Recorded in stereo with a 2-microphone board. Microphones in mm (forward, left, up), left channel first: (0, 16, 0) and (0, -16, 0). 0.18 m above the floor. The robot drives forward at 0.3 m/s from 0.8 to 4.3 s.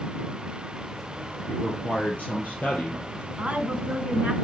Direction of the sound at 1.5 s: 55° left (ahead or behind).